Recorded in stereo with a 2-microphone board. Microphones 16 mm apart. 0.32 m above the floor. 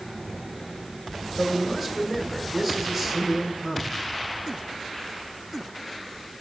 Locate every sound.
1.4 s a man speaking: 5° left (ahead or behind), 1.3 m